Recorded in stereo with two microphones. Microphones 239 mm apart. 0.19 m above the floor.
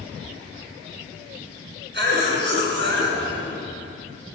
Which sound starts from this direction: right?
A cough, at 1.9 s.